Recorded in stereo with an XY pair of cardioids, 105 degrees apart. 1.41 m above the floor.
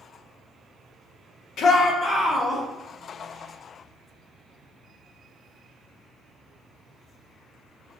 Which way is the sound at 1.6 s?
65° left.